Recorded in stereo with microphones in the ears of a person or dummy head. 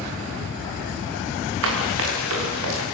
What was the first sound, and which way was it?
Running footsteps, 75° right (ahead or behind).